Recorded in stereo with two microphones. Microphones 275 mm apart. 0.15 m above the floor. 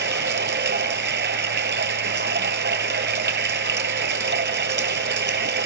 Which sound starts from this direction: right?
Running water, at 0.0 s.